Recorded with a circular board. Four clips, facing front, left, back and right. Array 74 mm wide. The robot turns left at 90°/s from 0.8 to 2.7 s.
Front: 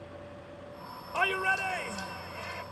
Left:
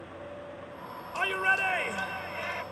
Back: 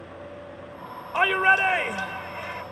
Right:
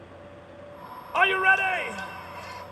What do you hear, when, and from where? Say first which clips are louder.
1.1 s a shout: right 7 dB, back 9 dB; 120° right; by 2.6 s 110° left